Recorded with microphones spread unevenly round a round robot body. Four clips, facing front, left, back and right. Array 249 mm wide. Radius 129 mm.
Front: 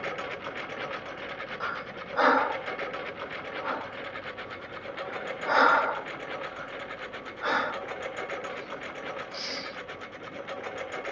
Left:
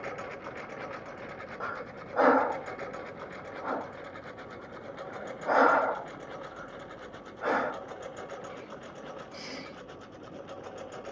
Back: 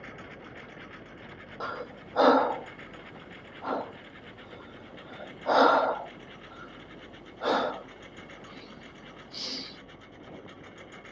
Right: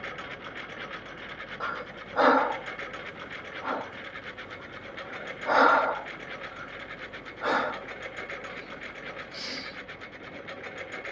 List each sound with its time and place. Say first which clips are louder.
0.0 s a lawn mower: left 1 dB, front 10 dB; 15° left; by 11.1 s 5° right
1.6 s breathing: right 3 dB, back 2 dB; 170° right